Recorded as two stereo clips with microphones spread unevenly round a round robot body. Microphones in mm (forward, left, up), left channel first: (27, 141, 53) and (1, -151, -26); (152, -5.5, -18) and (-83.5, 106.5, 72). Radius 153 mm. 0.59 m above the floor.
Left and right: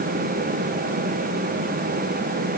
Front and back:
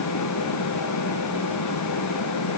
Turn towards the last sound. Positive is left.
No sound to turn to.